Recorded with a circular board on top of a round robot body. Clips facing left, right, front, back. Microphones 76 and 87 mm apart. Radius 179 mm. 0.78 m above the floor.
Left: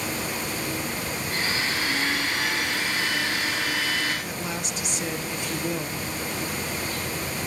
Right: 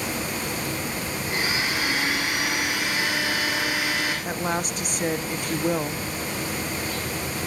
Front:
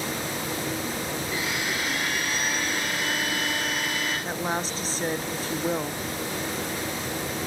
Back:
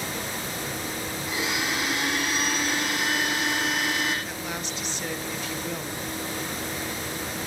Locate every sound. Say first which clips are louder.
1.3 s a blender: right 2 dB, back 1 dB; 165° right, 8 m
4.2 s a woman speaking: right 5 dB, front 5 dB; 50° right, 1.7 m